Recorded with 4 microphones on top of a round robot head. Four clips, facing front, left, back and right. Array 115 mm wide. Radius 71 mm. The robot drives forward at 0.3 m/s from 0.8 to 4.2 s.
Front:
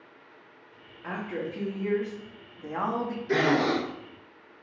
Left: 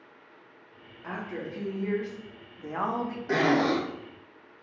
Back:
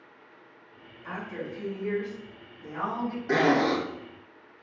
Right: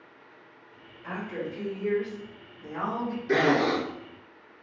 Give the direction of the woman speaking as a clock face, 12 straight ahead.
11 o'clock.